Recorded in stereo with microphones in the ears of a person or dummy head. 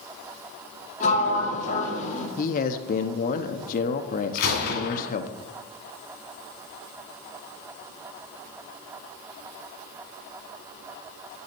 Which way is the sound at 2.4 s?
45° left (ahead or behind).